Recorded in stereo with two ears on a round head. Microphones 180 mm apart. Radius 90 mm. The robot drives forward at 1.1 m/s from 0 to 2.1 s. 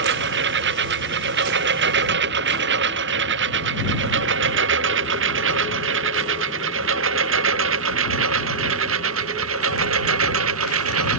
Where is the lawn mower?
65° right (ahead or behind); by 11.2 s 80° right.